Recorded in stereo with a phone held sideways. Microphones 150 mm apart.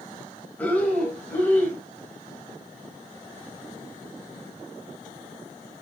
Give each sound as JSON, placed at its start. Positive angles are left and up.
{"t": 0.6, "sound": "breathing", "side_deg": 10, "distance_m": 3.0}